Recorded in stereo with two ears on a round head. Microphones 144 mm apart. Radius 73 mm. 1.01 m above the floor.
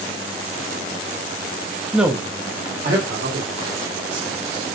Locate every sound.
1.9 s a man speaking: 5° left (ahead or behind), 0.6 m; by 4.7 s 80° right, 3 m